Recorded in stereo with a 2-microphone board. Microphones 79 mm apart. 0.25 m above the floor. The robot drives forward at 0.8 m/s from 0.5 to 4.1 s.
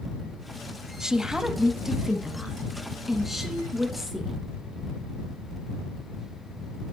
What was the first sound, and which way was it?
A woman speaking, 5° right (ahead or behind).